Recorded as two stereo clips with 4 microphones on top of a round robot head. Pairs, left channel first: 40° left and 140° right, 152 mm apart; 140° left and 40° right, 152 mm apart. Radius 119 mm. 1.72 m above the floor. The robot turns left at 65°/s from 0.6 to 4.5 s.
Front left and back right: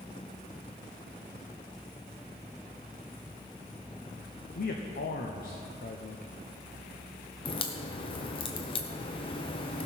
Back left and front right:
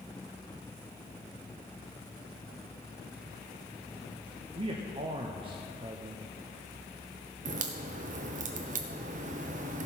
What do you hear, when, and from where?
4.5 s a man speaking: 15° left, 1.0 m
7.5 s a crack: 10° right, 0.6 m